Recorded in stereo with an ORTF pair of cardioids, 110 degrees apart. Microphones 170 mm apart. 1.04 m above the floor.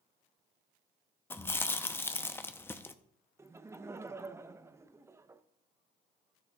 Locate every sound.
1.3 s chewing: 15° left, 0.7 m
3.4 s laughter: 15° right, 0.7 m